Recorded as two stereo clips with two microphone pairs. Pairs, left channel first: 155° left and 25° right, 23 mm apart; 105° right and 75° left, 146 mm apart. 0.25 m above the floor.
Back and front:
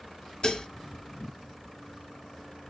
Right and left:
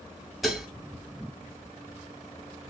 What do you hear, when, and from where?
0.4 s dishes clattering: 165° left, 0.8 m